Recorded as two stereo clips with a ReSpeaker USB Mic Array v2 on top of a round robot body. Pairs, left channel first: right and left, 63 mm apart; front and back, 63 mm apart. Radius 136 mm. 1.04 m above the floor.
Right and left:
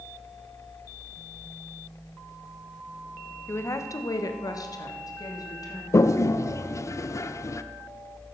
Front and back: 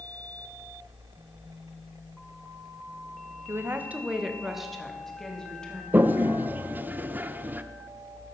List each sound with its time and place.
3.5 s a woman speaking: 135° right, 1.5 m; by 5.8 s 75° right, 3.5 m
5.9 s a toilet flushing: 120° right, 0.8 m